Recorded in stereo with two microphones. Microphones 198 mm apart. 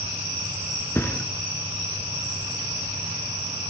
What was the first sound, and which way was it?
A thud, 15° left (ahead or behind).